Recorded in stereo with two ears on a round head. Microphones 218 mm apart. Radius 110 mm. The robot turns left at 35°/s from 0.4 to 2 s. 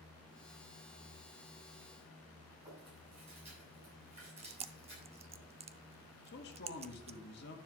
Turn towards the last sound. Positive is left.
turn(degrees=45)  # may be behind; listen again after turning